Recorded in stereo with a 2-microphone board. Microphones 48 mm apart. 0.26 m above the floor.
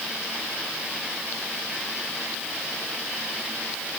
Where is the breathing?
No breathing in this recording.